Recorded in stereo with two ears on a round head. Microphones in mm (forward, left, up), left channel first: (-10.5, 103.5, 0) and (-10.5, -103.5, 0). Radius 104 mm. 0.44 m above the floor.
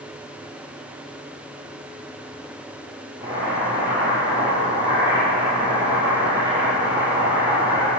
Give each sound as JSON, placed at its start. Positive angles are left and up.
{"t": 3.2, "sound": "boiling", "side_deg": -15, "distance_m": 6.0}